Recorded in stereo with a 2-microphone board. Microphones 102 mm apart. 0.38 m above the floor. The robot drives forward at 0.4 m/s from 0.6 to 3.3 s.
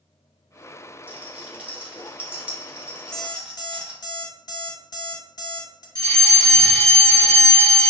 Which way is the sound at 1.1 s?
15° right (ahead or behind).